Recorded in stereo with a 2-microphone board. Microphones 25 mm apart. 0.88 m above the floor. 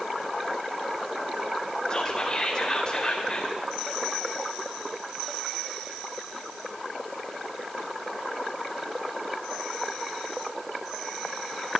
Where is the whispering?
40° left (ahead or behind), 3 m.